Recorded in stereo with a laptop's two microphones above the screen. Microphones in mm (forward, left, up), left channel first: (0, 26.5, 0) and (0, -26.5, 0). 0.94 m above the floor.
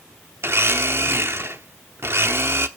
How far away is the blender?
About 0.9 m.